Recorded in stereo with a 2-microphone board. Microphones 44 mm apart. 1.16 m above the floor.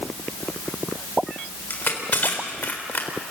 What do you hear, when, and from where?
1.7 s crushing: 45° left (ahead or behind), 4 m